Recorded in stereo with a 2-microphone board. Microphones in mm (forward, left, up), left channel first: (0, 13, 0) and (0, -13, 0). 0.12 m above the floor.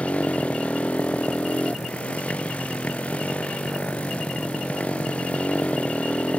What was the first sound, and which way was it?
A motorcycle, 60° left (ahead or behind).